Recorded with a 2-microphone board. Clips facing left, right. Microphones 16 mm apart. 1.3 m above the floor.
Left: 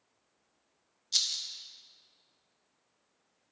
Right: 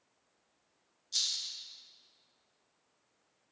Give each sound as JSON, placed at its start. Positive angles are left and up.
{"t": 1.1, "sound": "a rattle", "side_deg": 30, "distance_m": 0.6}